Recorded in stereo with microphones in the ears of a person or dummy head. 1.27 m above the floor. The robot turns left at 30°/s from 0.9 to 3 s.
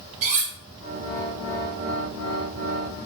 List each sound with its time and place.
0.2 s cutlery clinking: 40° right (ahead or behind), 0.8 m